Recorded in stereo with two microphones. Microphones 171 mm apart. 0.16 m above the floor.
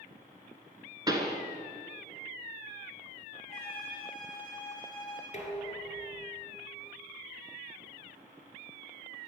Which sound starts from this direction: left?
Dishes clattering, at 5.3 s.